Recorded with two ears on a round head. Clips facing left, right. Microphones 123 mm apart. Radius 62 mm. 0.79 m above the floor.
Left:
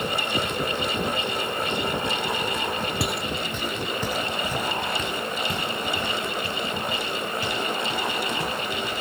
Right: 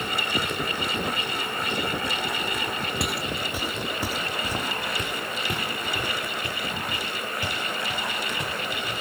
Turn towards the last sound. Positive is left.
turn(degrees=-15)  # may be behind; listen again after turning